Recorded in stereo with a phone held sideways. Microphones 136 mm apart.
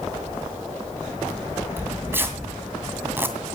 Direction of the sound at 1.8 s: 15° right (ahead or behind).